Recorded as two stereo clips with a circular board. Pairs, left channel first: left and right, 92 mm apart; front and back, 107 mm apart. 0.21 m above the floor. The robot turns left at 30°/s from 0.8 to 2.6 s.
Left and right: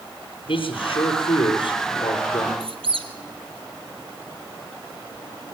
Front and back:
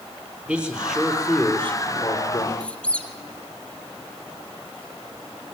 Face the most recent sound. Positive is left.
turn(degrees=-80)